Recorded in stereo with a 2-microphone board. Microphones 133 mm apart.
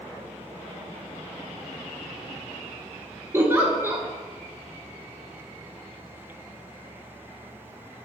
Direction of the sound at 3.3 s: 20° right (ahead or behind).